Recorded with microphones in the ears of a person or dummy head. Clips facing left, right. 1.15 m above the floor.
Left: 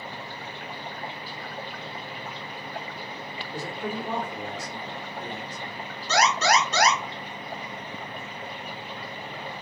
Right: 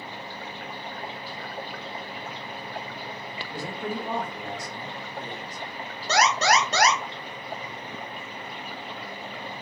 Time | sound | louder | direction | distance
3.5 | a man speaking | even | 35° right (ahead or behind) | 1.9 m
6.1 | an alarm | even | 45° right (ahead or behind) | 1.6 m